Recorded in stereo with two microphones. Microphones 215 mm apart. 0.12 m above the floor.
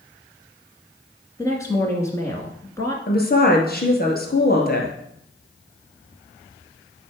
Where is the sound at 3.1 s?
45° left (ahead or behind), 1.9 m.